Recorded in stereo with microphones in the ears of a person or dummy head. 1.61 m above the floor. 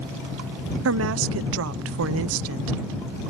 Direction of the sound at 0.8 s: 75° right (ahead or behind).